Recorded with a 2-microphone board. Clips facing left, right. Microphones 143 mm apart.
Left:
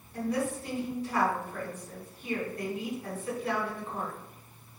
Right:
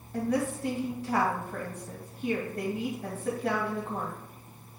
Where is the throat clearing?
No throat clearing in this recording.